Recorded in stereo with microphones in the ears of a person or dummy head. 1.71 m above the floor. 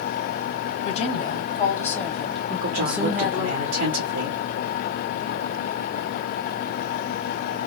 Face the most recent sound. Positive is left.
turn(degrees=-50)  # may be behind; listen again after turning